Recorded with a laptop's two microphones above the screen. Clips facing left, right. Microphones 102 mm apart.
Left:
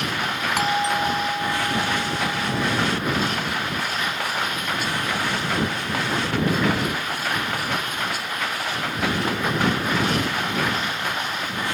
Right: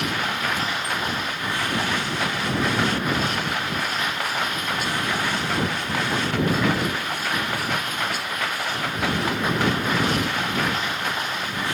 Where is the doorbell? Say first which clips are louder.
Left 5 dB; 80° left.